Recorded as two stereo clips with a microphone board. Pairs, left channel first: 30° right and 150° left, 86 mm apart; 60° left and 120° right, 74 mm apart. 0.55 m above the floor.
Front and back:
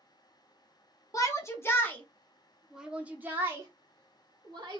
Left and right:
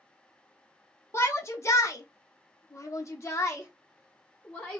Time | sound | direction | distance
1.1 | a shout | 15° left | 1.2 m